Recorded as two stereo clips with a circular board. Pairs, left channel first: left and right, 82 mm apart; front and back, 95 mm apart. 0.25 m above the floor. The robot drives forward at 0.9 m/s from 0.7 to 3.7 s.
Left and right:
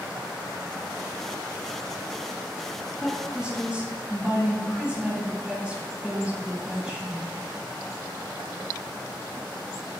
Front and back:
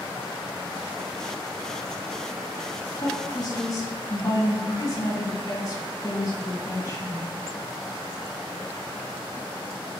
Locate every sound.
3.0 s a woman speaking: 15° right, 2.5 m; by 7.3 s 20° right, 2 m